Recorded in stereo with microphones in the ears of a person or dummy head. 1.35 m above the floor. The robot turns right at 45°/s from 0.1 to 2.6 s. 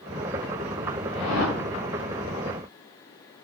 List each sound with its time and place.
1.1 s a whoosh: 30° left (ahead or behind), 3.5 m; by 1.6 s 50° left (ahead or behind), 3.5 m